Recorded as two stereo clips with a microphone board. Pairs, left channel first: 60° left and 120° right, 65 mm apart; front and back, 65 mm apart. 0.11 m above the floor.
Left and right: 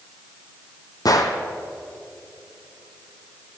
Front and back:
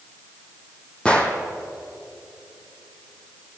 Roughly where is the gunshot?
Left.